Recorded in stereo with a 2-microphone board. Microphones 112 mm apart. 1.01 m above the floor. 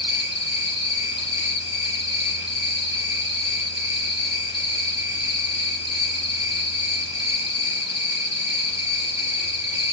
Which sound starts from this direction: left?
An insect, at 0.0 s.